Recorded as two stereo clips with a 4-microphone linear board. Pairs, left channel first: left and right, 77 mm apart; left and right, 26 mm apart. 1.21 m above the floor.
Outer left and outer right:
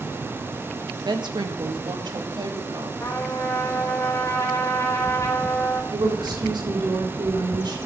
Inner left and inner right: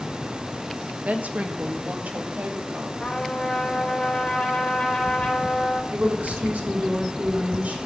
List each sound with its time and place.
1.1 s a woman speaking: 70° right (ahead or behind), 1.5 m
3.0 s a trumpet: 40° left (ahead or behind), 3.5 m
5.9 s a woman speaking: 80° right, 4 m